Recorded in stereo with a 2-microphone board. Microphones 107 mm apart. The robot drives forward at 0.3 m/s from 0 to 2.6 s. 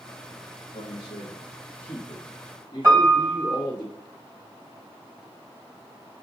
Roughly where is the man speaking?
Left.